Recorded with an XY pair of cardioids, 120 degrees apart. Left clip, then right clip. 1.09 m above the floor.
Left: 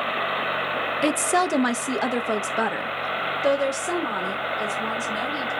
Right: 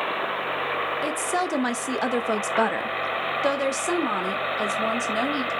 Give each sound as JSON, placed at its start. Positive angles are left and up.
{"t": 1.0, "sound": "a woman speaking", "azimuth_deg": 40, "distance_m": 0.5}